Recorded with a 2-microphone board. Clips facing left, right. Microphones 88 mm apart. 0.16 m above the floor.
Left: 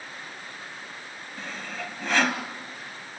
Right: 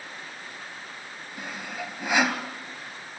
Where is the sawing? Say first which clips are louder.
Right 1 dB; 15° right (ahead or behind), 1.6 m.